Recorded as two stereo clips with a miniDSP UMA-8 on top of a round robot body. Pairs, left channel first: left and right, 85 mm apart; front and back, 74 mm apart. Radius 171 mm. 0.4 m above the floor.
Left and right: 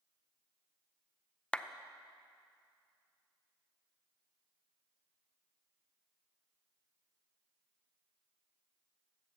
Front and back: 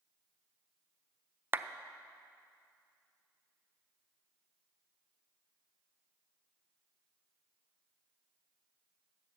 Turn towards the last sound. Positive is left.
turn(degrees=155)